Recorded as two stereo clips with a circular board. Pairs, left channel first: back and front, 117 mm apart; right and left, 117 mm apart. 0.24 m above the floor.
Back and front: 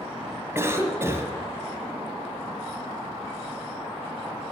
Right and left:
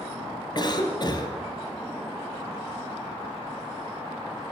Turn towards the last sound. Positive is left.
turn(degrees=-60)